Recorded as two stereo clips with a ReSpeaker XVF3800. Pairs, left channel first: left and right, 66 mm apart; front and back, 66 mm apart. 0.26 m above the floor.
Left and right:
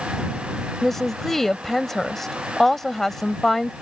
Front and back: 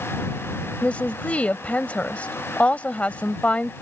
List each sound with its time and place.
0.8 s a woman speaking: 15° left